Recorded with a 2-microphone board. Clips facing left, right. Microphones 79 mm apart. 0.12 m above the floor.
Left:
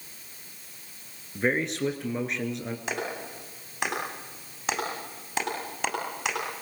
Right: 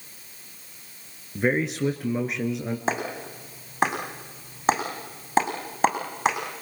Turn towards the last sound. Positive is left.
turn(degrees=-35)  # may be behind; listen again after turning